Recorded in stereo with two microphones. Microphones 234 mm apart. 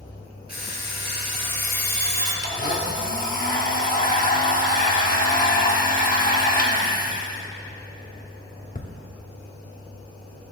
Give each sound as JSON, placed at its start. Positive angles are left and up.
{"t": 0.5, "sound": "an alarm clock", "side_deg": 40, "distance_m": 3.5}
{"t": 2.4, "sound": "a blender", "side_deg": 35, "distance_m": 1.0}